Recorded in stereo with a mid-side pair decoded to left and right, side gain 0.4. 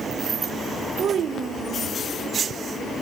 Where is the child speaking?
65° right, 0.8 m.